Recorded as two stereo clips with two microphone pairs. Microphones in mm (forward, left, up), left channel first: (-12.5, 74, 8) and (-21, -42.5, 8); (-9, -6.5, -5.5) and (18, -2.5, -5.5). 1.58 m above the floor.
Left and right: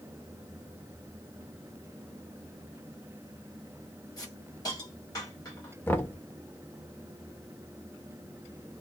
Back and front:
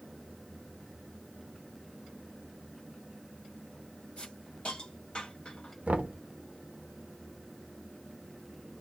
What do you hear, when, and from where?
4.2 s a hiss: 140° left, 2.5 m
5.9 s knocking: 15° left, 0.9 m